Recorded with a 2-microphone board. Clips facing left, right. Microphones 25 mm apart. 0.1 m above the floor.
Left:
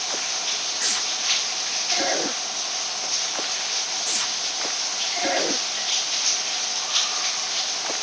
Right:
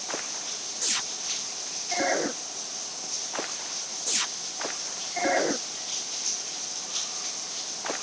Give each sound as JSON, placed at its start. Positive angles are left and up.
{"t": 0.0, "sound": "running water", "side_deg": 45}